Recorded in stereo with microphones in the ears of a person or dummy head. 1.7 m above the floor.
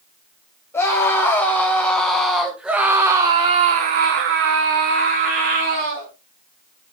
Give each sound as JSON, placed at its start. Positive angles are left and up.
{"t": 0.7, "sound": "a scream", "side_deg": 10, "distance_m": 3.5}